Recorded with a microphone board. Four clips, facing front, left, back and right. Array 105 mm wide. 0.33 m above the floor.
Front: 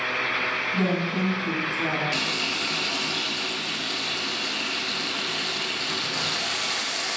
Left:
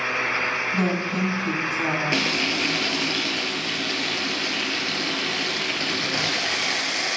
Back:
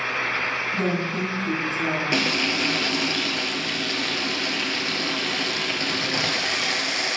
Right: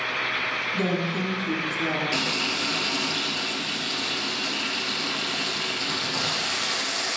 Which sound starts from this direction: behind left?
Frying, at 2.1 s.